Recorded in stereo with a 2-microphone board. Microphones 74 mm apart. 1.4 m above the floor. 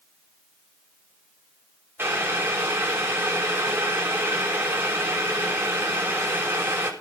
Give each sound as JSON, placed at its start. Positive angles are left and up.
{"t": 2.0, "sound": "boiling", "side_deg": -30, "distance_m": 5.5}